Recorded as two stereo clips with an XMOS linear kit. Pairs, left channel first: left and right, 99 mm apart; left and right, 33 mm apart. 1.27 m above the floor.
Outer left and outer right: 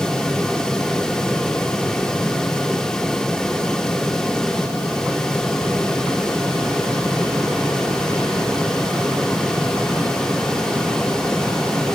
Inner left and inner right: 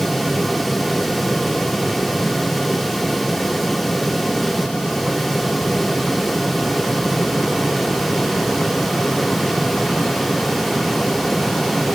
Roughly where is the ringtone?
I don't hear a ringtone.